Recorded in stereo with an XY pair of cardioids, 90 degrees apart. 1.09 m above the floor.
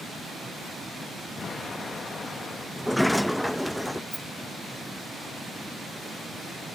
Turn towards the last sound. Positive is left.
turn(degrees=-15)